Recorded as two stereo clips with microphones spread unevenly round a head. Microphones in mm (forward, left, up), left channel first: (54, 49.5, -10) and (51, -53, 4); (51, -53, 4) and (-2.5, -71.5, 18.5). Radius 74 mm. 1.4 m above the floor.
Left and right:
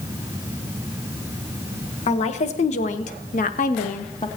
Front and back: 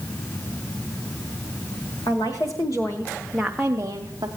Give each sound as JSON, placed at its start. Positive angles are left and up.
{"t": 2.1, "sound": "a woman speaking", "azimuth_deg": 75, "distance_m": 1.3}